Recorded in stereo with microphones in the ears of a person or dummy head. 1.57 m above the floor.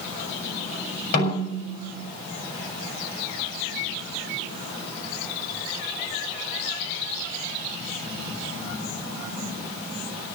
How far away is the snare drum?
About 7 m.